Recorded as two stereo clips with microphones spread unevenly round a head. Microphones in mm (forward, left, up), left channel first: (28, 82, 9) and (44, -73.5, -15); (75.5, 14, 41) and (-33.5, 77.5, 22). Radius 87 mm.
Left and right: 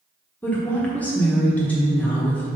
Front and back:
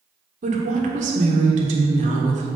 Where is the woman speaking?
Straight behind, 1.3 m.